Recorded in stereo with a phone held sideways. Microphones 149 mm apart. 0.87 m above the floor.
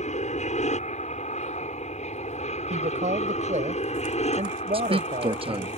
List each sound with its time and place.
0.0 s an aircraft: 50° left (ahead or behind); by 5.8 s 45° left (ahead or behind)
2.7 s a woman speaking: 55° right (ahead or behind)
4.7 s a man speaking: 40° right (ahead or behind)